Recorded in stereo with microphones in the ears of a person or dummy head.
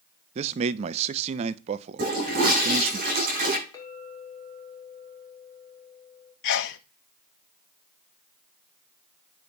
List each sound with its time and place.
0.3 s a man speaking: 35° right (ahead or behind), 0.5 m
2.0 s a toilet flushing: 55° right (ahead or behind), 5 m
3.7 s a clink: 20° left (ahead or behind), 2.5 m
6.4 s a sneeze: 65° left (ahead or behind), 0.8 m